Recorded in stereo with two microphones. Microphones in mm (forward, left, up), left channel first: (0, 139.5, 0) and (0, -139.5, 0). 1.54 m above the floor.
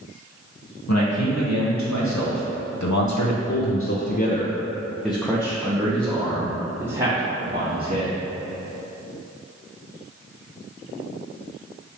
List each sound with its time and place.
0.9 s a man speaking: 70° left (ahead or behind), 2 m; by 8.1 s 30° right (ahead or behind), 3 m